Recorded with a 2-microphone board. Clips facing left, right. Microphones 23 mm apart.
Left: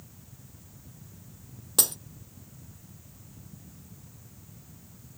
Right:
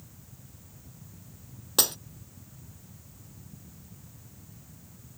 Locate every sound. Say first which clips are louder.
1.8 s breaking glass: right 2 dB; 20° right (ahead or behind)